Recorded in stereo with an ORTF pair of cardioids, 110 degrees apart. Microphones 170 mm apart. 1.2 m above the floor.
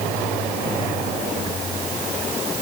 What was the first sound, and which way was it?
Only background noise.